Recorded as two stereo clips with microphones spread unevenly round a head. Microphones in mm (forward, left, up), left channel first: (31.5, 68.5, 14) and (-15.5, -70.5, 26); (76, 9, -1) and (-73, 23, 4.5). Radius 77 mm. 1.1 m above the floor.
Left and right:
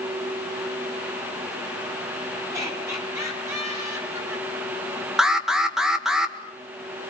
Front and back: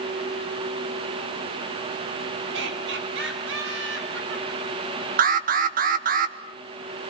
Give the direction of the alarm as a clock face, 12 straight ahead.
7 o'clock.